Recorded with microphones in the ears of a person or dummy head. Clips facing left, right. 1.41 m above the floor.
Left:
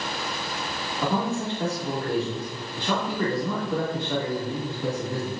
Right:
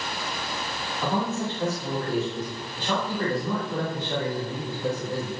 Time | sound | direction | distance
1.0 | a man speaking | 80° left | 2.5 m